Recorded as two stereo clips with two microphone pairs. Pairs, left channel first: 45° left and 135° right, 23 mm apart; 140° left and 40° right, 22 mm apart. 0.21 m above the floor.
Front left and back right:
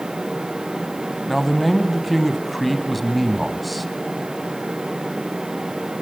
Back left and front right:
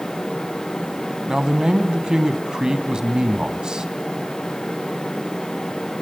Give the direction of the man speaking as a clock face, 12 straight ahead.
2 o'clock.